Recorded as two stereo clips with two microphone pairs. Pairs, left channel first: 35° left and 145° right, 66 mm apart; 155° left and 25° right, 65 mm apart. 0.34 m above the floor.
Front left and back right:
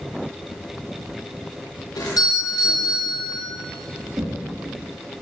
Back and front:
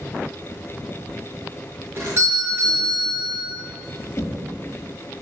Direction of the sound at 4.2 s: 160° right.